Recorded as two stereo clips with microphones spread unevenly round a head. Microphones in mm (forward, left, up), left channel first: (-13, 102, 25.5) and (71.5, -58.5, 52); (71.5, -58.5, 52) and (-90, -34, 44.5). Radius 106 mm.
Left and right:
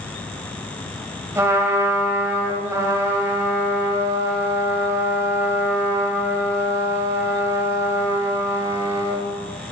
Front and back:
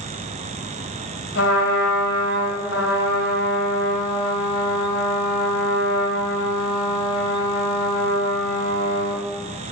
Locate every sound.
1.4 s a trumpet: 10° left, 1.7 m